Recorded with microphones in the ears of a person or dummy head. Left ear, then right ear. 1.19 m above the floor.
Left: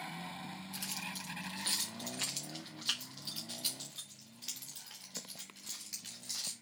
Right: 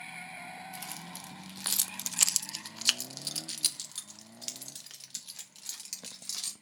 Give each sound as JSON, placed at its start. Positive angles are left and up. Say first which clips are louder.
{"t": 0.7, "sound": "keys jangling", "louder": "left 1 dB", "side_deg": -5, "distance_m": 0.9}